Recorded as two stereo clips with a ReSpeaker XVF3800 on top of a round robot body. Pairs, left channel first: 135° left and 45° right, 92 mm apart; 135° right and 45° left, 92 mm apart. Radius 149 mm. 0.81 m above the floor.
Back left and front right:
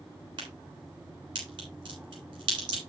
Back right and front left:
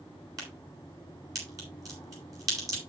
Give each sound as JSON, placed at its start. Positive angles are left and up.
{"t": 0.4, "sound": "a crack", "azimuth_deg": -10, "distance_m": 8.0}